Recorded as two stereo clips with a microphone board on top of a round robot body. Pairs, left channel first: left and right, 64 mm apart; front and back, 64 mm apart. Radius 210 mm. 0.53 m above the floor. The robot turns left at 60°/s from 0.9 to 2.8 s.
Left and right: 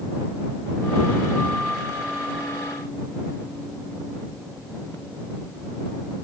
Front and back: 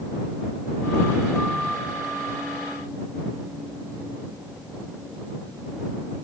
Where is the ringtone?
No ringtone in this recording.